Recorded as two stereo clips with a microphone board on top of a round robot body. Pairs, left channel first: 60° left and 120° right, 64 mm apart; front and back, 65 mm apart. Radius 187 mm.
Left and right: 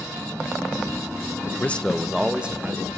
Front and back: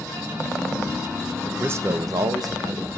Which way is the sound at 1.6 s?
120° left.